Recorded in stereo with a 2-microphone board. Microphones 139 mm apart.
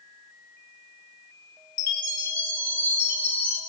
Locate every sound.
1.8 s a chime: 70° right (ahead or behind), 0.6 m